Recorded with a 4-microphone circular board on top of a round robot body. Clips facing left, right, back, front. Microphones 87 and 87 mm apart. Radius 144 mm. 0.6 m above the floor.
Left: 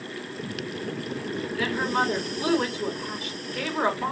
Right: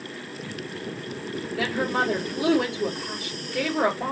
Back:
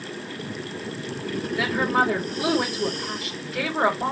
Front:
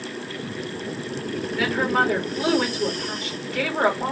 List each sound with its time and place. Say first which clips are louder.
1.6 s a woman speaking: right 1 dB, front 1 dB; 100° right, 3.5 m